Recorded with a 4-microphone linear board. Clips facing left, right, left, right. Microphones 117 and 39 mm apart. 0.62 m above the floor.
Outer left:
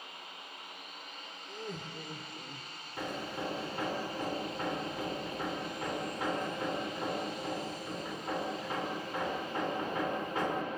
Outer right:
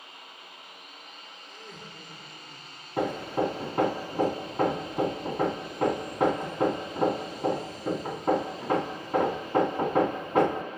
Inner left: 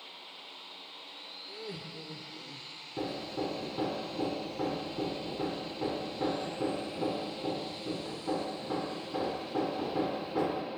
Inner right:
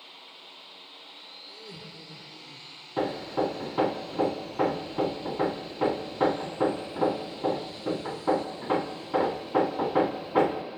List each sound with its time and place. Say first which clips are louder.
1.5 s laughter: outer left 5 dB, inner left 4 dB; 30° left (ahead or behind), 1.4 m
3.0 s hammering: outer right 11 dB, inner right 8 dB; 60° right (ahead or behind), 1.1 m